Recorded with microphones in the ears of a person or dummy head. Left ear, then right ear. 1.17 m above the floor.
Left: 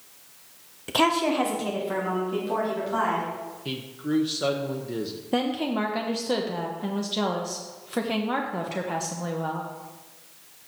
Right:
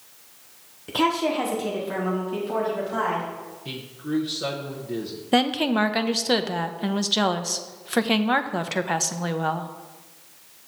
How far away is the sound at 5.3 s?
About 0.6 m.